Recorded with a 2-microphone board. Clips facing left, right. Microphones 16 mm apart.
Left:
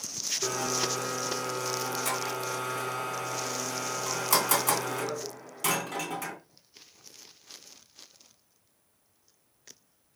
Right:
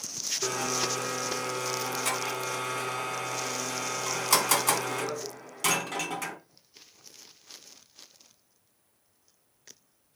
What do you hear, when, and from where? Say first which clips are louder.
0.4 s a blender: right 1 dB; 25° right (ahead or behind), 2.5 m